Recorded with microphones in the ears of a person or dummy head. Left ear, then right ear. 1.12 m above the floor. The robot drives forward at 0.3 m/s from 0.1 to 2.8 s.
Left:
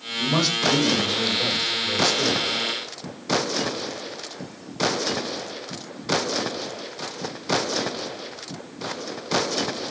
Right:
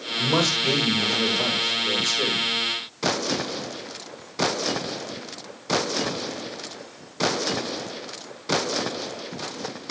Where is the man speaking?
40° right (ahead or behind), 6 m; by 2.5 s 35° right (ahead or behind), 6.5 m.